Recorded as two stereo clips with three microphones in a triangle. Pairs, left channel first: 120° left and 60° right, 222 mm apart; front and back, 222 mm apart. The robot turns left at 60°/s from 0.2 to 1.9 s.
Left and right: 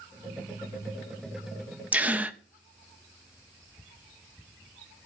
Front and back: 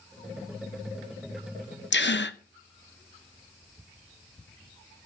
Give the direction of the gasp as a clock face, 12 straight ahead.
11 o'clock.